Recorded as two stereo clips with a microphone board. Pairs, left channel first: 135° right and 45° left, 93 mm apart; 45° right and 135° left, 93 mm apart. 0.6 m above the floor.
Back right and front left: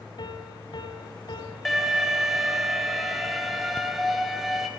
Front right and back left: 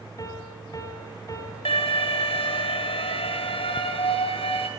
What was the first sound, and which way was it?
A piano, 100° right.